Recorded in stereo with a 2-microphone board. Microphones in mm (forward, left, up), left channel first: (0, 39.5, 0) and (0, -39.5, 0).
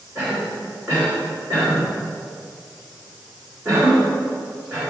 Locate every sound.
0.1 s a cough: 40° right (ahead or behind), 2.5 m